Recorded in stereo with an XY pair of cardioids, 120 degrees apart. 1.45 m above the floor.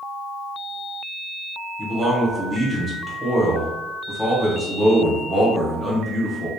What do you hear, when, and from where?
1.8 s a man speaking: straight ahead, 1.4 m